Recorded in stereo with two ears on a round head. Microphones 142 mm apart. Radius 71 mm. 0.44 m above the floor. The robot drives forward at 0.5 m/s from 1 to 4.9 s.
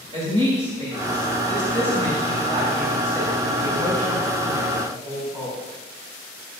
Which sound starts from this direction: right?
A woman speaking, at 0.1 s.